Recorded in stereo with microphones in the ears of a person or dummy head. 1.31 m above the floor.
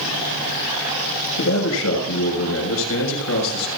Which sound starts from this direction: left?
A man speaking, at 1.4 s.